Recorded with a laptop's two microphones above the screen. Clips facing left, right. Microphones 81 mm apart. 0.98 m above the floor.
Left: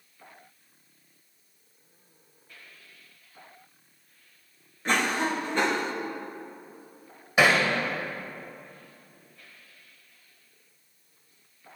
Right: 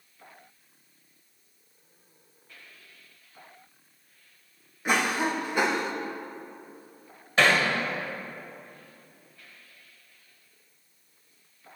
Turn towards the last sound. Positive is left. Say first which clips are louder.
# left 1 dB
turn(degrees=10)  # may be behind; listen again after turning